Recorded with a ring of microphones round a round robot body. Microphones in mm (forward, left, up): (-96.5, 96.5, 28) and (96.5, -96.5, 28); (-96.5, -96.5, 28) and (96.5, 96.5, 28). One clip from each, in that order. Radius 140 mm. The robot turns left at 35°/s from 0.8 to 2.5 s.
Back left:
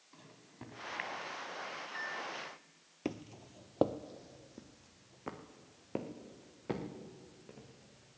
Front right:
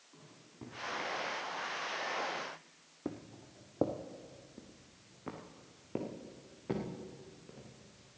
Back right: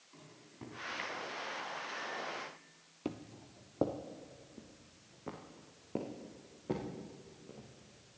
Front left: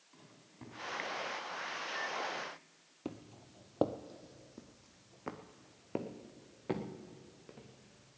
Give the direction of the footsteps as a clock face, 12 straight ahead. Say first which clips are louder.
Back left 2 dB, back right 3 dB; 7 o'clock.